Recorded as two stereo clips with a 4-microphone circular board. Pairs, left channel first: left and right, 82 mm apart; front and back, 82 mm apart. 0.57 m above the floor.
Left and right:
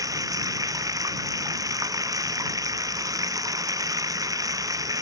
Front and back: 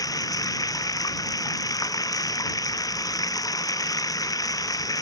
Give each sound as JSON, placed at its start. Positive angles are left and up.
{"t": 0.0, "sound": "running water", "azimuth_deg": -45}